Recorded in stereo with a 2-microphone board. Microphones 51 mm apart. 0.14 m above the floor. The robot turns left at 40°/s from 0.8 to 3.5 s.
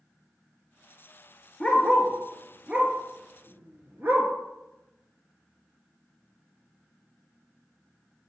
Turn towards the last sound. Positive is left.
turn(degrees=-45)  # may be behind; listen again after turning